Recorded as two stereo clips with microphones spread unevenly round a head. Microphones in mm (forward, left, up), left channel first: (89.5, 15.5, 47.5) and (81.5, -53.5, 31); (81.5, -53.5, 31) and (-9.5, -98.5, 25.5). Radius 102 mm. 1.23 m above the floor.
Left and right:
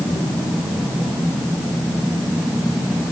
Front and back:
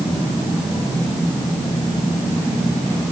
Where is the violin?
No violin in this recording.